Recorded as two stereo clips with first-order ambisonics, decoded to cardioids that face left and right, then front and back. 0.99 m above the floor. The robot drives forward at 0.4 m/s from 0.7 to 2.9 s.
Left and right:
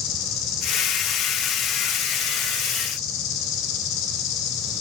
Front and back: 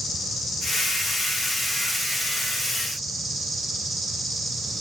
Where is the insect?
75° left, 2.5 m; by 4.8 s 95° left, 2.5 m.